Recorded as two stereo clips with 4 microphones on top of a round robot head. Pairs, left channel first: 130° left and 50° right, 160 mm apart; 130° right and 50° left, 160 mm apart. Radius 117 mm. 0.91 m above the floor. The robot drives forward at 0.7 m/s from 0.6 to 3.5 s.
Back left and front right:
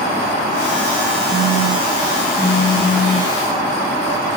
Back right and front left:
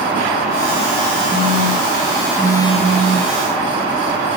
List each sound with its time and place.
1.3 s a phone buzzing: 175° right, 7 m